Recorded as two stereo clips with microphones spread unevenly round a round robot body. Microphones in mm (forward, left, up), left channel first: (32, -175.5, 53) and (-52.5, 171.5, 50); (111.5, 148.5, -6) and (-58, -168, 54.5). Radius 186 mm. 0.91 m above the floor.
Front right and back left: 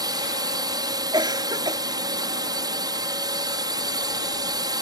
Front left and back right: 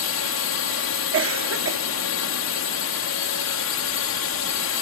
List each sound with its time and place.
0.0 s a drone: 25° left
1.1 s a cough: 175° right